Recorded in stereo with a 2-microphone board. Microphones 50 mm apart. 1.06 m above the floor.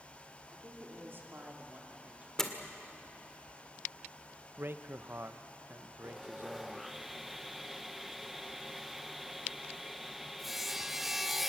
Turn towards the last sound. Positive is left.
turn(degrees=-5)  # may be behind; listen again after turning